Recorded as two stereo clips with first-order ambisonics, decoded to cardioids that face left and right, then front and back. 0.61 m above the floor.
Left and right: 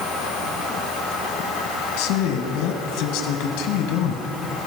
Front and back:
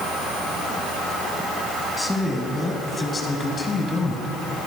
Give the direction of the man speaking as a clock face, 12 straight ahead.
9 o'clock.